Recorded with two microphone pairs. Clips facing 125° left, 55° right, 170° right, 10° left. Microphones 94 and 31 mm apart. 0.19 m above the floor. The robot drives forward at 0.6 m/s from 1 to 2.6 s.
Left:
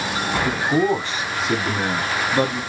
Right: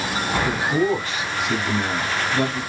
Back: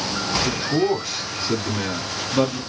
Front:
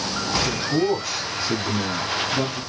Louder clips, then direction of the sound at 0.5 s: Left 2 dB, back 2 dB; 115° left.